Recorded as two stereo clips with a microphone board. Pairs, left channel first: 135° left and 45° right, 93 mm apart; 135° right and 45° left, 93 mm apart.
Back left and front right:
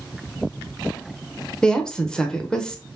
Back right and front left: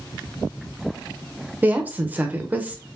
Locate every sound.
1.6 s a woman speaking: 70° left, 0.8 m